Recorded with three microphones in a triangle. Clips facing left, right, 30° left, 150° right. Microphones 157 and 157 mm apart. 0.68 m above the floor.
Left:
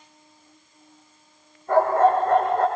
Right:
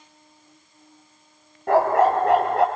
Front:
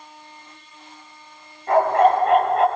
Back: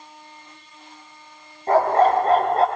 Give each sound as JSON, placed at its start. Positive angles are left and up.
{"t": 1.7, "sound": "a dog barking", "azimuth_deg": -95, "distance_m": 4.5}